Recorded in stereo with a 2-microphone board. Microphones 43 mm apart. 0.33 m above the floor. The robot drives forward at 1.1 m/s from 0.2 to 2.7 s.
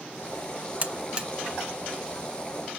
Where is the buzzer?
40° right (ahead or behind), 0.6 m; by 1.3 s 25° right (ahead or behind), 1.0 m.